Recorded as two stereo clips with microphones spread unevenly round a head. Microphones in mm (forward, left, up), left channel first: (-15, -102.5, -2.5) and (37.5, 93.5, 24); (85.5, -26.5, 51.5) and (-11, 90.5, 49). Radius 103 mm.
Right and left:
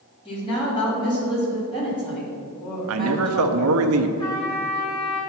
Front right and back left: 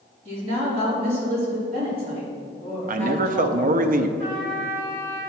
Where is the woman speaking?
170° right, 3.5 m.